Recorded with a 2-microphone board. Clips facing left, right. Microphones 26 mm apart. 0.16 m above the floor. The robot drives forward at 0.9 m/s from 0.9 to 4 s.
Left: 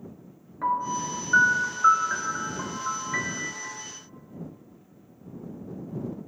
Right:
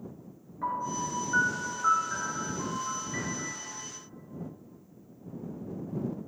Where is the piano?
40° left (ahead or behind), 1.9 m; by 3.7 s 35° left (ahead or behind), 2 m.